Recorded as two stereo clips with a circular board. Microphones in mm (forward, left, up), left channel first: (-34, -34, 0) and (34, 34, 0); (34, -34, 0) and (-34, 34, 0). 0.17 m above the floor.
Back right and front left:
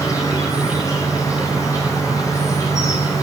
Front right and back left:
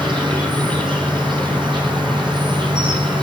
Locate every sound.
0.0 s an insect: 170° left, 2.5 m